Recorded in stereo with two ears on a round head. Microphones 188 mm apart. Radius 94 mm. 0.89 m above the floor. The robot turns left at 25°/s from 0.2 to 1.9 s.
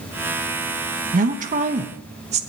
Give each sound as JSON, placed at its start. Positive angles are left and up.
{"t": 1.1, "sound": "a woman speaking", "side_deg": -40, "distance_m": 1.0}